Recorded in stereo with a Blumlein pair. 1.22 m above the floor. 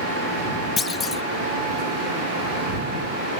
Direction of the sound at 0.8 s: 20° left.